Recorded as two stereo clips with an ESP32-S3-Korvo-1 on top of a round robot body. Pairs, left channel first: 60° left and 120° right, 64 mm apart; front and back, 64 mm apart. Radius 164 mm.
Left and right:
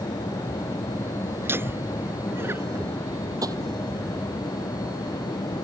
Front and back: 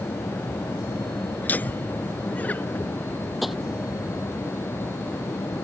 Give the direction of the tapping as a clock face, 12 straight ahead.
3 o'clock.